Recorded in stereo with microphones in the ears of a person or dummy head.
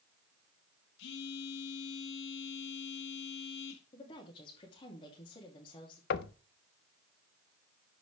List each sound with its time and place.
1.0 s a phone buzzing: 65° left (ahead or behind), 1.6 m
3.9 s a woman speaking: 25° left (ahead or behind), 2.5 m
6.1 s knocking: 60° left (ahead or behind), 0.6 m